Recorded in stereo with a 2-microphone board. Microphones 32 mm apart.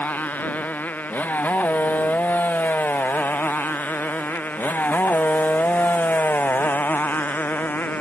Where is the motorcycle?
65° left (ahead or behind); by 8.0 s 80° left.